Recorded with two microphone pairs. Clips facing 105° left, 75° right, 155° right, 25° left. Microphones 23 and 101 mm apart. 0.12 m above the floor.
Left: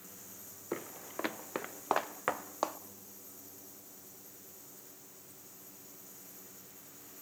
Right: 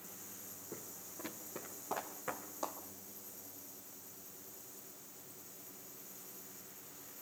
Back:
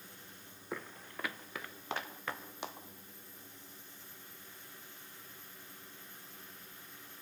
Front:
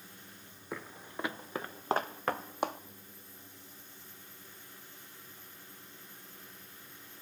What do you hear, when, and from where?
0.7 s footsteps: 120° left, 0.6 m; by 2.8 s 65° left, 1.4 m